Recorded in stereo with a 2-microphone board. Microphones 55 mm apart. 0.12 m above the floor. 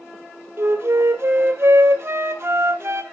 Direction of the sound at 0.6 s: 45° right (ahead or behind).